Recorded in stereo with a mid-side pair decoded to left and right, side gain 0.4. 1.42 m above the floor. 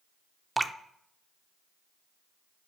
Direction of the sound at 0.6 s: 15° right.